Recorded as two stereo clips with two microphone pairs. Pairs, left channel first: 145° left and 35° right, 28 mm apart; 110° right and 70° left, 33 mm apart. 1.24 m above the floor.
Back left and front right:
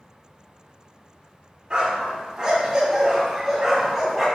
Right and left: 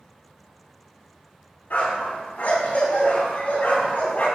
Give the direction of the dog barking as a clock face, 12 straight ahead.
3 o'clock.